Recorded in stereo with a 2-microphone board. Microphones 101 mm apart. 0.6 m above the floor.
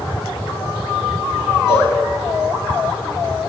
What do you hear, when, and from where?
1.7 s a cowbell: 45° right (ahead or behind), 6.5 m